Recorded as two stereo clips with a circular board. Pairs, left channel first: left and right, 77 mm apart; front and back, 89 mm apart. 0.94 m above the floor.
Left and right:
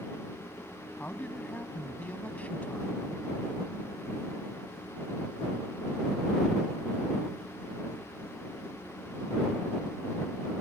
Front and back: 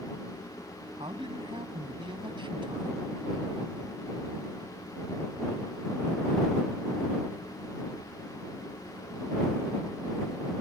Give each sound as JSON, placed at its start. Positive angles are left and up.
{"t": 1.0, "sound": "a man speaking", "azimuth_deg": 160}